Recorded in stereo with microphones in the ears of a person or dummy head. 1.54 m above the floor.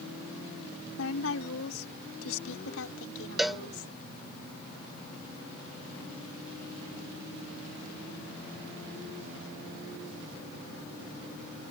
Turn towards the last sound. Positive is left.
turn(degrees=0)  # may be behind; listen again after turning